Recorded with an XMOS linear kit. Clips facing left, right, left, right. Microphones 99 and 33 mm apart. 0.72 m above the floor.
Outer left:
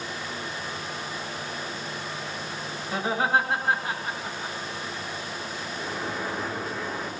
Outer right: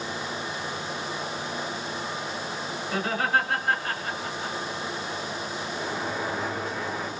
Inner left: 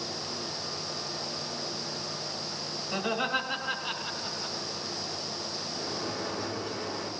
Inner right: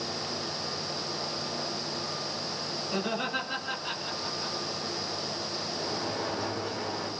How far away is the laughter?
About 8.5 m.